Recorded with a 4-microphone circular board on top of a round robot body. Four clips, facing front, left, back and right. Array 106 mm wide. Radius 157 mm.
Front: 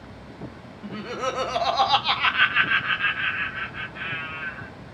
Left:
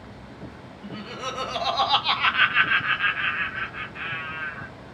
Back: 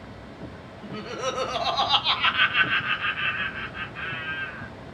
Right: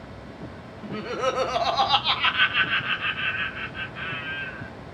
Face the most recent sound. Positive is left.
turn(degrees=85)